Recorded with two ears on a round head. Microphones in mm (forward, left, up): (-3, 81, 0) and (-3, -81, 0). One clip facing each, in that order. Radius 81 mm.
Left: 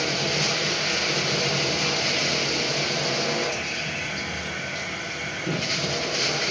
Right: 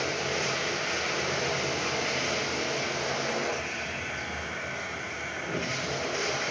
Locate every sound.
0.0 s running water: 45° left (ahead or behind), 8.5 m